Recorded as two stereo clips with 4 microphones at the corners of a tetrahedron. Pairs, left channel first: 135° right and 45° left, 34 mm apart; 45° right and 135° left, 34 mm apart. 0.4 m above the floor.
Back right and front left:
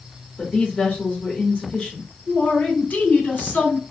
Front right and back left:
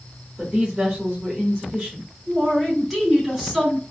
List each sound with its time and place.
0.4 s a woman speaking: 170° right, 1.3 m
2.3 s a man speaking: 150° right, 2.5 m